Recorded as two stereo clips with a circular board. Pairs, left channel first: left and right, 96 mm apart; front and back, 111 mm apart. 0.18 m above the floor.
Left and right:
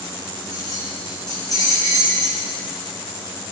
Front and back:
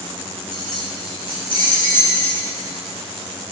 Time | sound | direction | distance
0.5 | keys jangling | 50° left | 5.5 m